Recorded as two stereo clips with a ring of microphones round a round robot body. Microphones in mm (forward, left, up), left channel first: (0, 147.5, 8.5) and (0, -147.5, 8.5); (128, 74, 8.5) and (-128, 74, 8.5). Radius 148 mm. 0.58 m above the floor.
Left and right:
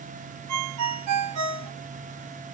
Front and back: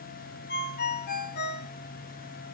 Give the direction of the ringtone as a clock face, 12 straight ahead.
2 o'clock.